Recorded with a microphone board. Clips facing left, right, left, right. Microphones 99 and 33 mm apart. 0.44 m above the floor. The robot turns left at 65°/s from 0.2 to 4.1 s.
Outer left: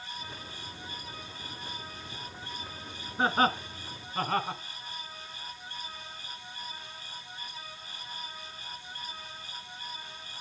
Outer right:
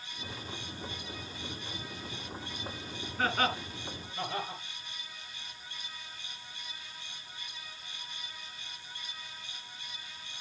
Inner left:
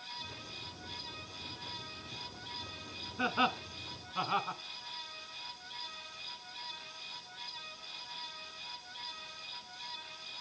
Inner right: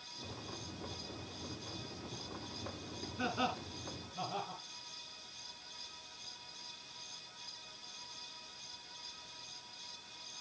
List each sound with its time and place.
3.2 s laughter: 20° left (ahead or behind), 2.5 m; by 4.6 s 65° left (ahead or behind), 2.5 m